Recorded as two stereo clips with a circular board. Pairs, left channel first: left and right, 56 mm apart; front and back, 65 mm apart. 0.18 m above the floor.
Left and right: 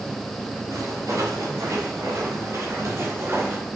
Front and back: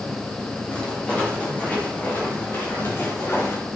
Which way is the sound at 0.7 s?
75° right.